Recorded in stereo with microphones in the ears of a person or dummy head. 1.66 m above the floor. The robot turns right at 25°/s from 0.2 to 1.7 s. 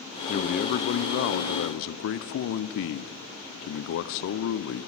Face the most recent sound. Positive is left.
turn(degrees=80)